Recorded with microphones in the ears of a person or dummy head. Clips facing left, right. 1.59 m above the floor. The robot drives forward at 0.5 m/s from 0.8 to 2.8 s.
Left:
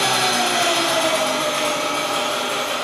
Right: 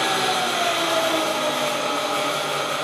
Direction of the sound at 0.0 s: 70° left (ahead or behind).